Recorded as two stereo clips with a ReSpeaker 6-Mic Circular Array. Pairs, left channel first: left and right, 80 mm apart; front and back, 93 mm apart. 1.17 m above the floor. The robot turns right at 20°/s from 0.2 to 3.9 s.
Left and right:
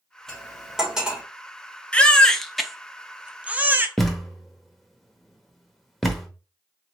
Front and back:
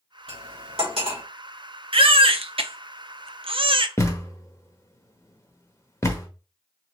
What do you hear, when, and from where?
0.3 s cutlery clinking: 175° left, 2 m; by 1.2 s 165° right, 2 m
1.9 s a baby crying: 165° left, 0.6 m; by 3.9 s 155° right, 0.6 m
4.0 s a thud: 5° left, 0.9 m